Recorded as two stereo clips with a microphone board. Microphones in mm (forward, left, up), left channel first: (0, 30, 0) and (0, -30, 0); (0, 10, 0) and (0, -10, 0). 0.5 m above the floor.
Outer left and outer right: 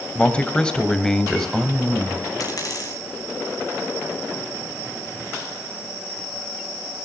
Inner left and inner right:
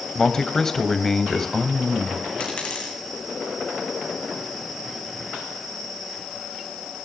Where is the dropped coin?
80° left, 5.5 m.